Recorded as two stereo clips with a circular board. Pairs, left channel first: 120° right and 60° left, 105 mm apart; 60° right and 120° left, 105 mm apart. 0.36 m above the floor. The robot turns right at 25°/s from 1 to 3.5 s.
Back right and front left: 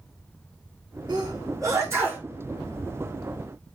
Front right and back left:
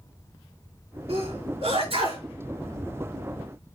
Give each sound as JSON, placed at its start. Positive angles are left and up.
{"t": 1.1, "sound": "a sneeze", "azimuth_deg": 105, "distance_m": 6.0}